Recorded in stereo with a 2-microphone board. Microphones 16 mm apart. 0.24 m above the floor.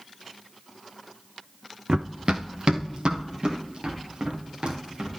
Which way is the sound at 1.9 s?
75° right (ahead or behind).